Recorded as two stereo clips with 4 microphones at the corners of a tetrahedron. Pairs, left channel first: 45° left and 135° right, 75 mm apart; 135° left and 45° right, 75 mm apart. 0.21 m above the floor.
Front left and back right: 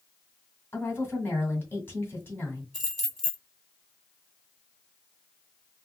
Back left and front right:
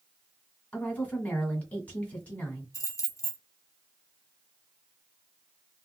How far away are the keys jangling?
About 1.4 m.